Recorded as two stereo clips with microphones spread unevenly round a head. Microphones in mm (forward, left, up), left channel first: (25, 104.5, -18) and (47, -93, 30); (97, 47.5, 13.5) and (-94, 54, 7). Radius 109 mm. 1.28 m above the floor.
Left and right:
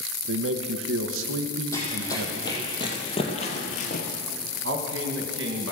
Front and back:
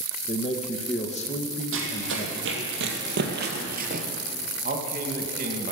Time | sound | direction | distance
0.3 | a man speaking | 65° right | 0.8 m
1.7 | running footsteps | straight behind | 3 m
4.6 | a man speaking | 125° right | 1.6 m